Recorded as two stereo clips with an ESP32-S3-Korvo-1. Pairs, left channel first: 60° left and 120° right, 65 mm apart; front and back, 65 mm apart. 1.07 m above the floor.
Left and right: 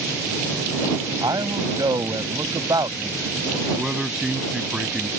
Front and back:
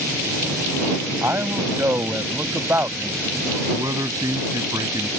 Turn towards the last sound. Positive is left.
turn(degrees=160)